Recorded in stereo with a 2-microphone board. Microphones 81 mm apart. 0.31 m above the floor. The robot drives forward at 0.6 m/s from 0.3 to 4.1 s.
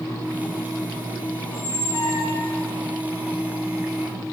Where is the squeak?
35° left (ahead or behind), 3 m; by 2.7 s 45° left (ahead or behind), 2 m.